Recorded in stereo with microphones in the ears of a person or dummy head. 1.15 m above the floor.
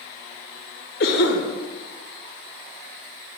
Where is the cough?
55° left (ahead or behind), 0.9 m.